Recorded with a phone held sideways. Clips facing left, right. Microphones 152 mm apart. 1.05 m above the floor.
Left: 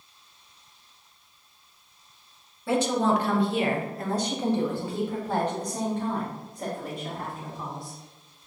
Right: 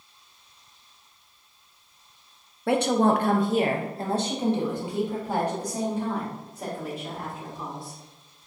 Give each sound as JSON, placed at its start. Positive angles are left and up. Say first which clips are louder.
{"t": 2.7, "sound": "a woman speaking", "louder": "right 2 dB", "side_deg": -60, "distance_m": 0.7}